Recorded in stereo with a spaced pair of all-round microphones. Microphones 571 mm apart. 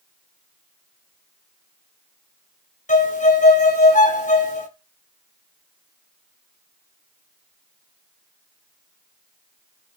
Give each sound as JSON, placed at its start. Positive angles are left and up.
{"t": 2.9, "sound": "a violin", "side_deg": 15, "distance_m": 0.6}